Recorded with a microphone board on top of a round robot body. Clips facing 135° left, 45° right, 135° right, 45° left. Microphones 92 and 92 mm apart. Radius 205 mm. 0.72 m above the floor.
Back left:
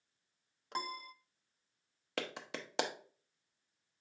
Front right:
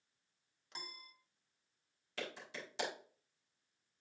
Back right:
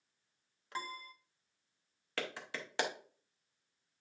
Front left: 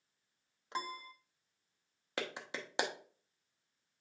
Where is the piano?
110° left, 0.6 m.